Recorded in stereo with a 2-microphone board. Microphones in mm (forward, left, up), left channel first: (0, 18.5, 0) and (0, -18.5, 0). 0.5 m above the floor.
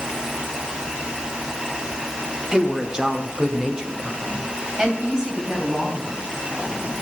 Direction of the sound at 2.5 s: 20° right (ahead or behind).